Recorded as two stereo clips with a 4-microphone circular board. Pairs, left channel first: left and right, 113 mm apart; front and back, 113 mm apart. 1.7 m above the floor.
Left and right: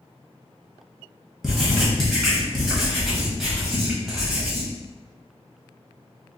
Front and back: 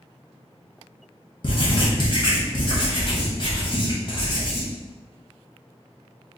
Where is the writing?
Straight ahead, 1.0 m.